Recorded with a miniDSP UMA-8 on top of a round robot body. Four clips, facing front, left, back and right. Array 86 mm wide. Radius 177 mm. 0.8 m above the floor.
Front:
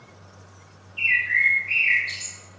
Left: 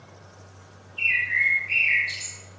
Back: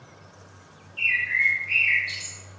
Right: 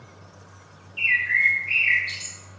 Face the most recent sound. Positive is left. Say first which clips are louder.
# right 3 dB, front 2 dB
turn(degrees=-90)